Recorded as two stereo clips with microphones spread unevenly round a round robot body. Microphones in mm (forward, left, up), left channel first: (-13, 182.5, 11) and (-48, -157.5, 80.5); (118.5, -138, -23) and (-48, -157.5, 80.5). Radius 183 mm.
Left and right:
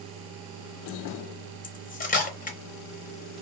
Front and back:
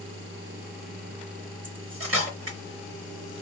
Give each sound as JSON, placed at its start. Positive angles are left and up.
{"t": 1.6, "sound": "cutlery clinking", "azimuth_deg": 145, "distance_m": 0.9}